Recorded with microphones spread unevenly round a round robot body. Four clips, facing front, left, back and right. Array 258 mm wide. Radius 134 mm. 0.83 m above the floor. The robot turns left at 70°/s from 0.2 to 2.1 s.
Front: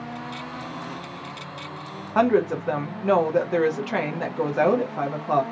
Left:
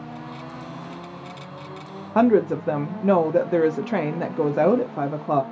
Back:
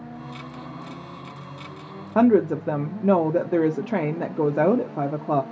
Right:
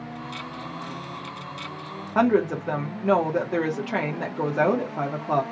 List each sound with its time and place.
2.1 s a woman speaking: 160° left, 0.5 m